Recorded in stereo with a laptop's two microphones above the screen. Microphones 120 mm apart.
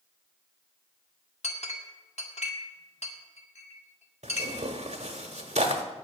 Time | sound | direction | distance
1.4 | a clink | 65° left (ahead or behind) | 1.6 m
4.2 | tearing paper | 70° right (ahead or behind) | 1.3 m